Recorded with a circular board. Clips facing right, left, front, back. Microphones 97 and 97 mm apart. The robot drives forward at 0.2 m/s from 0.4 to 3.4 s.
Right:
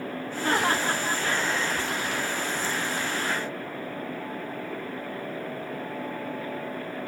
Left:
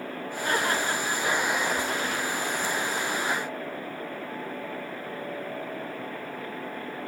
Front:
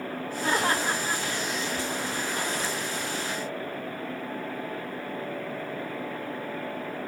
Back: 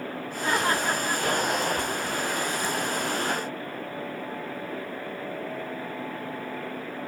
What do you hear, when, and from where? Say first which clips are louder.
0.4 s laughter: right 2 dB, back 1 dB; 85° right, 2 m; by 1.2 s 90° right, 2 m